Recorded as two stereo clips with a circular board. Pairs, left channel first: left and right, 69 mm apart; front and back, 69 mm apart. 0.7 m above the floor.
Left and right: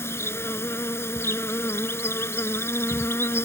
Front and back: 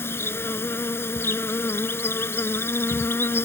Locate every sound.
0.0 s an insect: 45° left